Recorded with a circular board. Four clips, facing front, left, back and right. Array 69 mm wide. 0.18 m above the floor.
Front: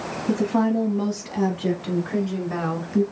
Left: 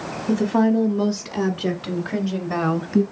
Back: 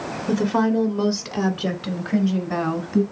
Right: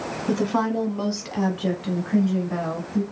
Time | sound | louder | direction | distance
0.3 | a woman speaking | left 4 dB, back 1 dB | 135° right | 1.3 m